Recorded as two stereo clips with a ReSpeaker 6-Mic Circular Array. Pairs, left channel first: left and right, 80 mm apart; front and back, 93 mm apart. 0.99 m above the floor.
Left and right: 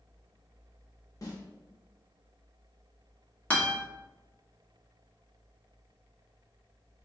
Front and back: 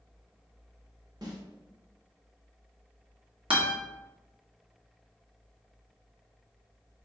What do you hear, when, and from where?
1.2 s a snare drum: 135° left, 1.0 m
3.5 s a guitar: 160° left, 1.1 m